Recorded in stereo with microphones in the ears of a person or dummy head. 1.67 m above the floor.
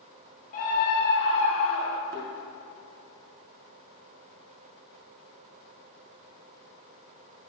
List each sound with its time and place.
0.5 s a scream: 45° left (ahead or behind), 2 m; by 2.0 s 85° left, 2.5 m
2.1 s a thud: 50° right (ahead or behind), 3.5 m